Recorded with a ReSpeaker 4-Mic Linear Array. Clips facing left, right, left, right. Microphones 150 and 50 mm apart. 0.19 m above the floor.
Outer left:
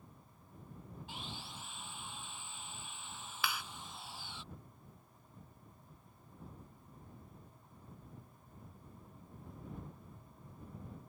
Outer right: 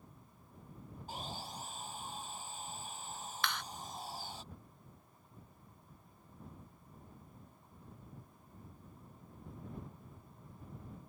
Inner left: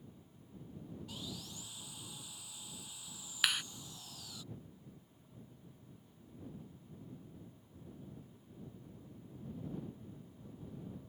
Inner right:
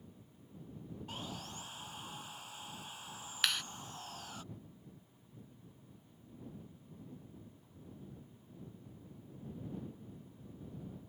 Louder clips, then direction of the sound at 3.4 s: Even, inner left 1 dB; 5° left (ahead or behind).